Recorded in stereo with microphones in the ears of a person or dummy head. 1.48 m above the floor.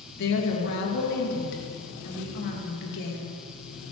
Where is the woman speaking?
60° left (ahead or behind), 2.5 m.